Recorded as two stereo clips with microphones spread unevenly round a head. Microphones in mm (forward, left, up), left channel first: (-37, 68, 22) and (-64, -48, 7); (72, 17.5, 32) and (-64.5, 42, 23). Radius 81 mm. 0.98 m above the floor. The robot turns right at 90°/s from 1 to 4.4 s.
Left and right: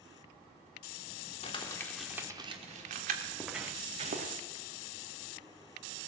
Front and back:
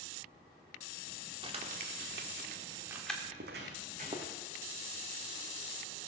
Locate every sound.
1.4 s crumpling: 115° left, 1.6 m; by 3.1 s 90° right, 1.6 m
3.2 s footsteps: 140° left, 2.5 m; by 4.3 s 105° right, 2.5 m